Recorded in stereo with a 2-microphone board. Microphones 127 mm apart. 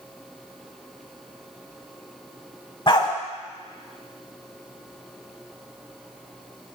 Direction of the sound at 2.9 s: 40° left (ahead or behind).